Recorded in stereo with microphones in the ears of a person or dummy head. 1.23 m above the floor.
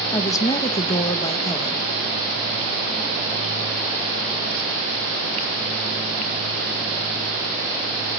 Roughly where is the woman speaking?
Centre.